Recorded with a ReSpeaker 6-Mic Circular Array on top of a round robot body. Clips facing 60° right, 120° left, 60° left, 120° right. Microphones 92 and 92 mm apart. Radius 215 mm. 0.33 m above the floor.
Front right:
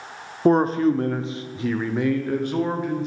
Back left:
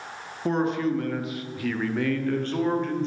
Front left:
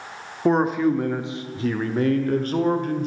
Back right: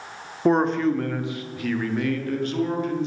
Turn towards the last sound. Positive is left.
turn(degrees=20)